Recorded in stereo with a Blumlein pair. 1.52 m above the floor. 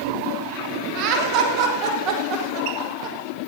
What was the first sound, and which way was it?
Laughter, 40° right.